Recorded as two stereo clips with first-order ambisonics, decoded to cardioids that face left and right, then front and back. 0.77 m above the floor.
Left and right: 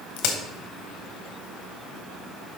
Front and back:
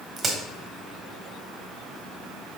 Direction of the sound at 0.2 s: 110° left.